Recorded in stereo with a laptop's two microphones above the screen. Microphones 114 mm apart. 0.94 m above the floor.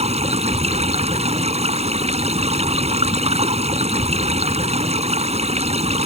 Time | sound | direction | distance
0.0 | running water | 70° right (ahead or behind) | ?